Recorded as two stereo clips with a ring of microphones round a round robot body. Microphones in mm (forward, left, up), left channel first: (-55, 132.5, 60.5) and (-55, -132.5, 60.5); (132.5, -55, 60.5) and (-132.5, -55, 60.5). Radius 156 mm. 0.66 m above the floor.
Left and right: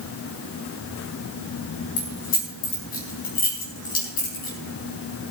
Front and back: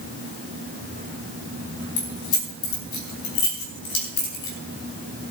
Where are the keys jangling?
30° left, 4 m.